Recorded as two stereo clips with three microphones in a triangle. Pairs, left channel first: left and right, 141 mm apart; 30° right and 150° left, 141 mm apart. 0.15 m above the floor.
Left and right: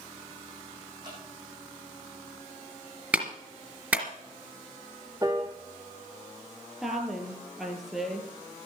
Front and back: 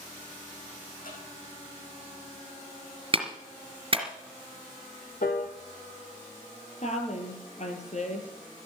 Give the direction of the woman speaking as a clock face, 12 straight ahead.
12 o'clock.